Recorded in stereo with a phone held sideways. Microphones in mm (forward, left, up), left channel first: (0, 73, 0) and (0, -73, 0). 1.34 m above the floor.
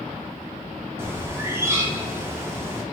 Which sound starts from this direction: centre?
A bird, at 1.0 s.